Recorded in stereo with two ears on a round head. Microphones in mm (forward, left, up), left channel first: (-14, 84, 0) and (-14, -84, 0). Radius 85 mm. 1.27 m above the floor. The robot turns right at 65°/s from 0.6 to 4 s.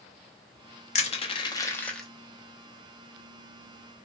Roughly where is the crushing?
Left.